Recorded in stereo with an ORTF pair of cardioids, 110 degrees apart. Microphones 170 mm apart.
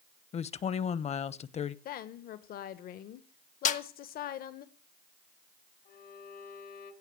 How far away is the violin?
About 3 m.